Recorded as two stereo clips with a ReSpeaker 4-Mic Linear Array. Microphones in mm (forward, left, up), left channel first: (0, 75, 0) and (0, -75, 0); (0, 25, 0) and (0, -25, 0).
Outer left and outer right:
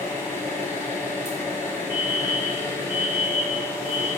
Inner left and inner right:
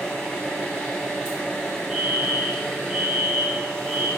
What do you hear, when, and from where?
0.0 s an engine running: 15° left (ahead or behind), 1.3 m
1.9 s a fire alarm: 15° right (ahead or behind), 1.9 m